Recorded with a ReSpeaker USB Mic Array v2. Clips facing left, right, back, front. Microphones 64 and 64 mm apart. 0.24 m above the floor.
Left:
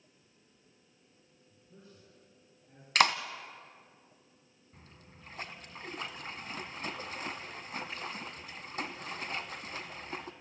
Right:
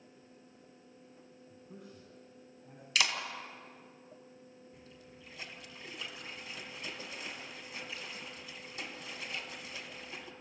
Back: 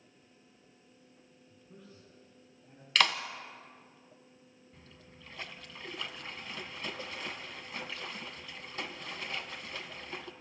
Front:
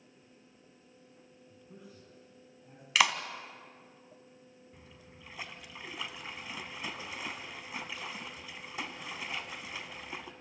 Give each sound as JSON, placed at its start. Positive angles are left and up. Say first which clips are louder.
{"t": 1.5, "sound": "a man speaking", "louder": "right 5 dB, front 2 dB", "azimuth_deg": -70, "distance_m": 7.5}
{"t": 3.0, "sound": "a clap", "louder": "left 7 dB, front 1 dB", "azimuth_deg": 75, "distance_m": 1.2}
{"t": 4.7, "sound": "a splash", "louder": "right 3 dB, back 1 dB", "azimuth_deg": 75, "distance_m": 1.6}